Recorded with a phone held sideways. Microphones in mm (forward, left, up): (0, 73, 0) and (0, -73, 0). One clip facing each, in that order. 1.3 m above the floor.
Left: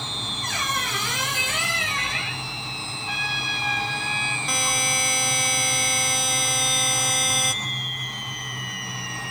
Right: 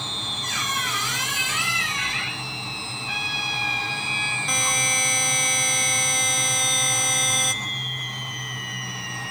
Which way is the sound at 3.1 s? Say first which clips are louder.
Left 1 dB; 55° left (ahead or behind).